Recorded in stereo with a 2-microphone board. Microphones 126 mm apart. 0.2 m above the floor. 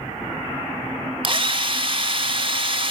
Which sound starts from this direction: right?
A drill, at 1.2 s.